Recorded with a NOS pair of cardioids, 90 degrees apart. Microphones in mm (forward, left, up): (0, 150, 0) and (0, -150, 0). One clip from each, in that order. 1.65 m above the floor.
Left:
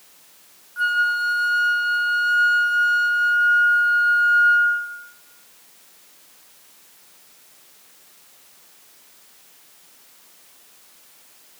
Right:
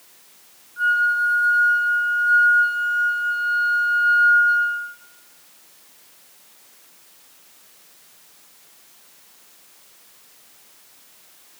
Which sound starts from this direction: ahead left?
A flute, at 0.8 s.